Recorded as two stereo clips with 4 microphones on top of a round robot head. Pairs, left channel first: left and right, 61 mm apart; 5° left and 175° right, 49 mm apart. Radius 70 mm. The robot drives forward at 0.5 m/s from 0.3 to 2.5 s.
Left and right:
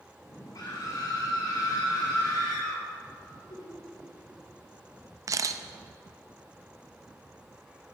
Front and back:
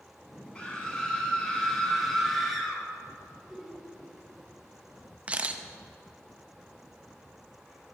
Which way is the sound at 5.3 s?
110° right.